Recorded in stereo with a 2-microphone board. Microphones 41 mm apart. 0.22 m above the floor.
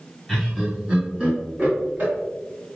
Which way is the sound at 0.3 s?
Centre (ahead or behind).